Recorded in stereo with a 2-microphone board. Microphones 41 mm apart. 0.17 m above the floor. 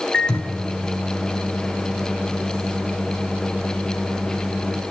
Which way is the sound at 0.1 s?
20° left (ahead or behind).